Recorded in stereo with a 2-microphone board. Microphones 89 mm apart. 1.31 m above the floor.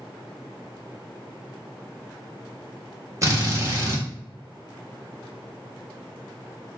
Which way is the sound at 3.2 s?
35° right (ahead or behind).